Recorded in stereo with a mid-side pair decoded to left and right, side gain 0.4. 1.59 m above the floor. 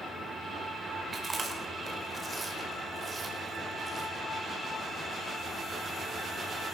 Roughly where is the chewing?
Ahead right.